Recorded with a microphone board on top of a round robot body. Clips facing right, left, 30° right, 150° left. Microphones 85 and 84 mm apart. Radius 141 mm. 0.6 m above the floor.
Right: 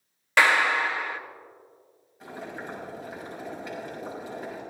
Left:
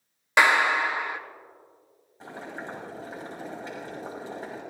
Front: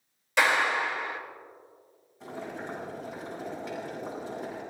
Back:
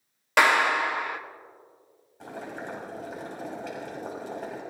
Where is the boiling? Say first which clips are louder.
Even, even; 145° left, 6.5 m.